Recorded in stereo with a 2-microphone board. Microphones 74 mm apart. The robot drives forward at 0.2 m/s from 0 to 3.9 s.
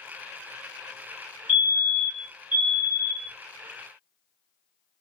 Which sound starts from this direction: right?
A fire alarm, at 1.5 s.